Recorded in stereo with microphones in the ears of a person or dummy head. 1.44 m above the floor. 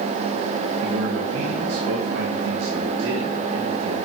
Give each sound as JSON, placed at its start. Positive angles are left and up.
{"t": 0.8, "sound": "a man speaking", "side_deg": -75, "distance_m": 1.6}